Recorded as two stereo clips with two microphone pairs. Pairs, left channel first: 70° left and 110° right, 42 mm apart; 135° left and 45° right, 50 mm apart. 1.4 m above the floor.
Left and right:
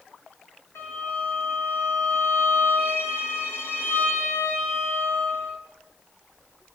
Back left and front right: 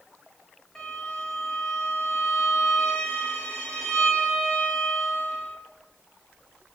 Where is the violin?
65° left, 7 m.